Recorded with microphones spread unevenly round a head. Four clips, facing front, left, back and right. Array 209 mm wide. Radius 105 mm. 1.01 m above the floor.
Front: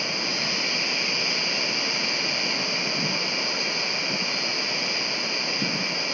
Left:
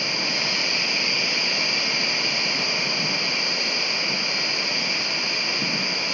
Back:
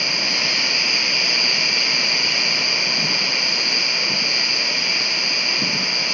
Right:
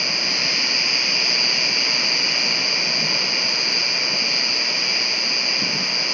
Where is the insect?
140° right, 1.9 m.